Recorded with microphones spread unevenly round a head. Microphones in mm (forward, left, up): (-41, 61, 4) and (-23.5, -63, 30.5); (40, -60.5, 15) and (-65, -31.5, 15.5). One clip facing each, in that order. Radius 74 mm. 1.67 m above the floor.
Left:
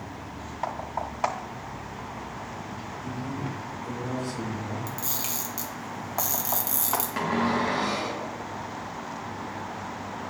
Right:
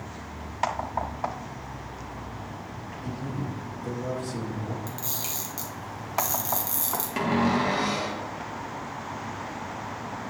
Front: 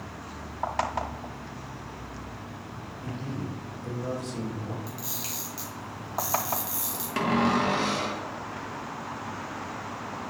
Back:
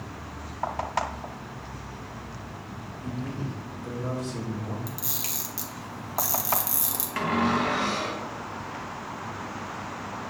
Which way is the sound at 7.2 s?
50° right.